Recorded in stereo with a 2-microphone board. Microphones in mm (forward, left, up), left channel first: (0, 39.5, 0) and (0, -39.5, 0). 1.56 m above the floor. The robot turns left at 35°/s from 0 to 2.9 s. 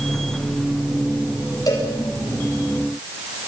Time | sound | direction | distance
1.7 | a cowbell | 55° left (ahead or behind) | 7.5 m